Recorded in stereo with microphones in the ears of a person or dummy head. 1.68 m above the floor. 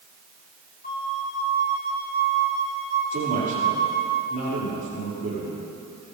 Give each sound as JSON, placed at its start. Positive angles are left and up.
{"t": 0.8, "sound": "a flute", "side_deg": 50, "distance_m": 2.0}
{"t": 3.1, "sound": "a man speaking", "side_deg": -40, "distance_m": 5.0}